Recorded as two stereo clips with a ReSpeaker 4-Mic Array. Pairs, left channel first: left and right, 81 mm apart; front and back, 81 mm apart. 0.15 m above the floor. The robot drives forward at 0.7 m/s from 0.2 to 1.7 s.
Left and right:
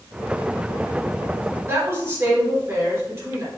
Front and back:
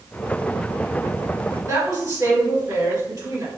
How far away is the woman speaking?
About 1.9 m.